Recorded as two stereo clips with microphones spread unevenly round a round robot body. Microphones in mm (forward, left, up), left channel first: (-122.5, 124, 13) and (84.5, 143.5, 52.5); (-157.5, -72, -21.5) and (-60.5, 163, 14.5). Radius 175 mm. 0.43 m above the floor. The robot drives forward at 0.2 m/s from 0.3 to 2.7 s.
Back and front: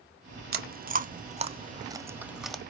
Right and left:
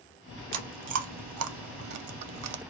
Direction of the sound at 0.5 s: 55° left.